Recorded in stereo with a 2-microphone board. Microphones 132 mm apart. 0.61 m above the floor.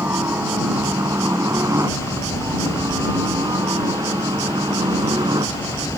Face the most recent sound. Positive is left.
turn(degrees=-35)  # may be behind; listen again after turning